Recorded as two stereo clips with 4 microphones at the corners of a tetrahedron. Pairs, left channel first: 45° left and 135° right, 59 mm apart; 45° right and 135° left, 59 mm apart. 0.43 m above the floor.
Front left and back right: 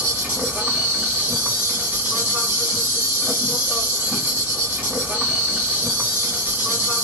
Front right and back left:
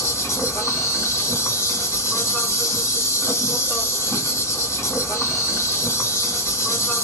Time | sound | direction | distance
0.0 | an insect | 80° right | 1.5 m